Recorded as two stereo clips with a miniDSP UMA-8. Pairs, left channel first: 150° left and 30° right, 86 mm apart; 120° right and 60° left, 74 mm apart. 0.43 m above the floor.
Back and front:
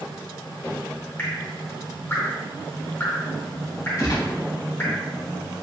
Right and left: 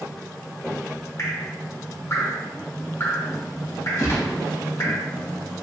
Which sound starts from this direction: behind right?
Dripping, at 1.2 s.